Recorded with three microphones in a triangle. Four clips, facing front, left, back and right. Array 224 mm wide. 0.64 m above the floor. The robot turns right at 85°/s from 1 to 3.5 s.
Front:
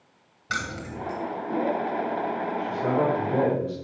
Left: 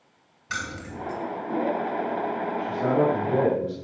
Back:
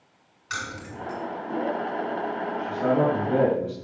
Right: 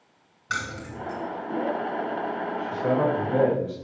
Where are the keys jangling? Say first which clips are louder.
Right 1 dB, front 3 dB; 15° right, 2.5 m; by 1.2 s 5° left, 2.5 m.